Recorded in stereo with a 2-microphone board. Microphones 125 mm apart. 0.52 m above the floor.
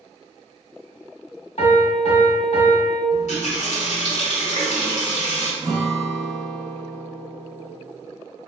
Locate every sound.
1.6 s a piano: 60° left (ahead or behind), 1.5 m
3.1 s a running tap: 75° left (ahead or behind), 1.2 m
5.6 s a guitar: centre (ahead or behind), 1.0 m